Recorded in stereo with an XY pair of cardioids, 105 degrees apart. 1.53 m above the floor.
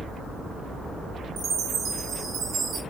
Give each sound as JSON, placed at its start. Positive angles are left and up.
{"t": 1.4, "sound": "a chime", "azimuth_deg": -65, "distance_m": 4.5}